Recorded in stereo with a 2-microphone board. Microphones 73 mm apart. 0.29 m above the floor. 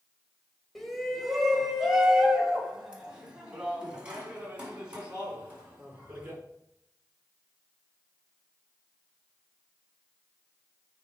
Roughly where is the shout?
Centre.